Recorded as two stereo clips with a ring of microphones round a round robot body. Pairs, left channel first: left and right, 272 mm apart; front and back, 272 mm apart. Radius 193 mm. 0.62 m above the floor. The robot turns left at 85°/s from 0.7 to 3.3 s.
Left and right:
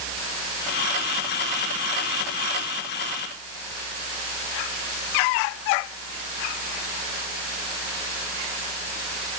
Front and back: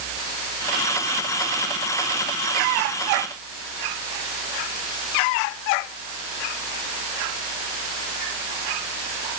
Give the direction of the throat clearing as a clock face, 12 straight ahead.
I don't hear throat clearing.